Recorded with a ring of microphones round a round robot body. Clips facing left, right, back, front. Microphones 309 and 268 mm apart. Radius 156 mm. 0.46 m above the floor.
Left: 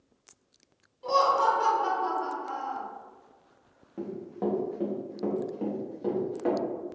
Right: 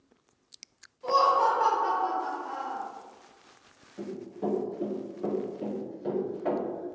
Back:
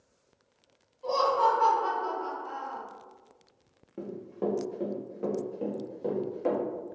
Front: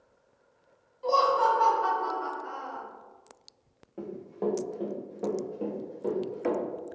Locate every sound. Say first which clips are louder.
1.0 s laughter: even, front 1 dB; 55° left, 1.7 m
4.0 s running footsteps: left 2 dB, even; 115° left, 1.4 m; by 6.6 s 80° left, 2.5 m